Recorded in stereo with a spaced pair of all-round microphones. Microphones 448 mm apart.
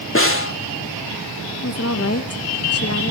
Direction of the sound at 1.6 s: 30° left (ahead or behind).